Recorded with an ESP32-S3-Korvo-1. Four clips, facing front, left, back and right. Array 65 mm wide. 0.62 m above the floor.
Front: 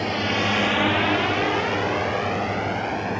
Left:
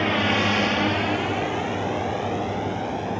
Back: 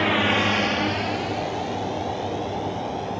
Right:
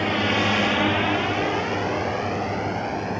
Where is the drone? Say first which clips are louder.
Even, back 3 dB; 165° left; by 3.2 s 20° right.